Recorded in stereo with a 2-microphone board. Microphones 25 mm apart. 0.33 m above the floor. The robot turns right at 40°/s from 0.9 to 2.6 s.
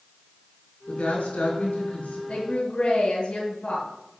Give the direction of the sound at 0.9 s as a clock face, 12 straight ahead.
10 o'clock.